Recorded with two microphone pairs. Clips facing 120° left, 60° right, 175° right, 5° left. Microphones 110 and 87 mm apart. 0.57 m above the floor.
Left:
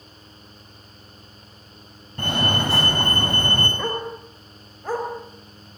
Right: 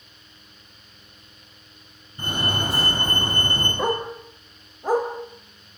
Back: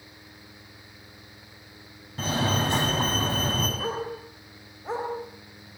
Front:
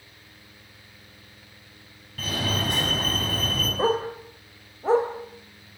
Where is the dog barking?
10° left, 4 m.